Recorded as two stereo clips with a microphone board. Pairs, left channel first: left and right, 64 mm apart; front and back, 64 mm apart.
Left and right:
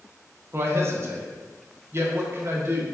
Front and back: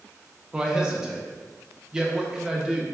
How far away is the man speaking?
About 0.6 m.